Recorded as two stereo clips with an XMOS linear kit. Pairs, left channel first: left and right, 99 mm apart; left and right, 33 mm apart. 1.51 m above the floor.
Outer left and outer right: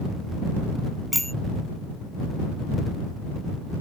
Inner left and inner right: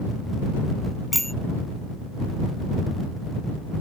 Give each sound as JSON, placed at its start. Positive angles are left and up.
{"t": 1.1, "sound": "a bicycle bell", "side_deg": 0}